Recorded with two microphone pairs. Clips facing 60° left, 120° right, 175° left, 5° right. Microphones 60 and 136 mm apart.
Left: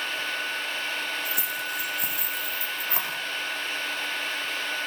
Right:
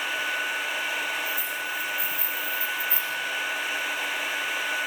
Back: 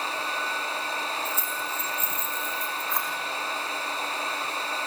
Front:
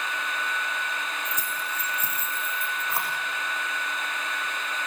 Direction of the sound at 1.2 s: 70° left.